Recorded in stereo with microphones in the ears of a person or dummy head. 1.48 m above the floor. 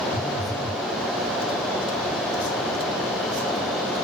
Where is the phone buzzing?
15° left (ahead or behind), 1.4 m.